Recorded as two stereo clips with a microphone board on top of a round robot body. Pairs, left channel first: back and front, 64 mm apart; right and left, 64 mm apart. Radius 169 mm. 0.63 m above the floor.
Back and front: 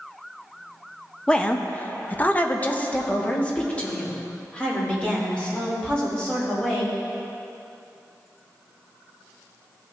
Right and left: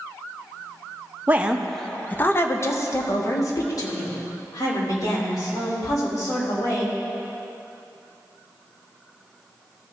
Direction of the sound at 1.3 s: 120° left.